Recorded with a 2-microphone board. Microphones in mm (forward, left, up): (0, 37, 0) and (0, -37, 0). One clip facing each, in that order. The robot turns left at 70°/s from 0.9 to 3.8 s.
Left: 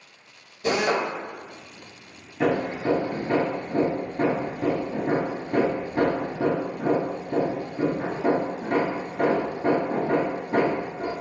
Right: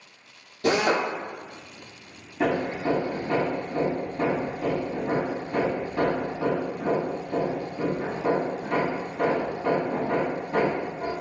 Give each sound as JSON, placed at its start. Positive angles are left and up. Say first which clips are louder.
{"t": 0.6, "sound": "a drill", "louder": "right 1 dB", "side_deg": -70, "distance_m": 1.8}
{"t": 2.4, "sound": "hammering", "louder": "left 1 dB", "side_deg": 5, "distance_m": 1.0}